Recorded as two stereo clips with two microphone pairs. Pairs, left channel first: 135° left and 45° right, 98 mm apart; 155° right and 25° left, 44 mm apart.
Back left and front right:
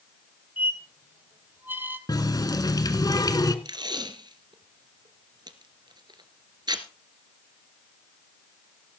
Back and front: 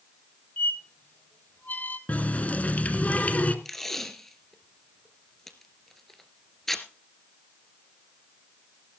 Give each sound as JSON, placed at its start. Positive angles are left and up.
{"t": 0.6, "sound": "a squeak", "azimuth_deg": -110, "distance_m": 1.5}
{"t": 2.1, "sound": "a running tap", "azimuth_deg": 165, "distance_m": 1.2}
{"t": 3.6, "sound": "tape being pulled", "azimuth_deg": -75, "distance_m": 1.5}